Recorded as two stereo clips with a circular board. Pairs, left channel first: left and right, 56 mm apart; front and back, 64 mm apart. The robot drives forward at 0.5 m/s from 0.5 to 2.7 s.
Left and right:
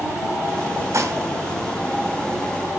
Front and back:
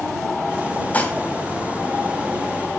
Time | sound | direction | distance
0.9 | dishes clattering | 65° right | 2.5 m